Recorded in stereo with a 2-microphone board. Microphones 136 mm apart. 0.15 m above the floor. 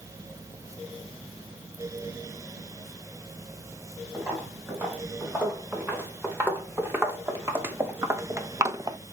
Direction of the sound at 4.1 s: 15° right (ahead or behind).